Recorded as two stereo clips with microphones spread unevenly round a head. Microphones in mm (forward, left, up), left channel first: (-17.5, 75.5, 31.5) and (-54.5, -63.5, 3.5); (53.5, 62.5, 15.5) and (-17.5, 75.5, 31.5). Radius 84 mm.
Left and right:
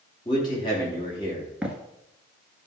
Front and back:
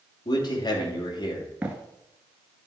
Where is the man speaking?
10° left, 3 m.